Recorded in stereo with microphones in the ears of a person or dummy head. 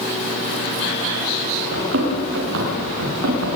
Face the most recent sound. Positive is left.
turn(degrees=-70)  # may be behind; listen again after turning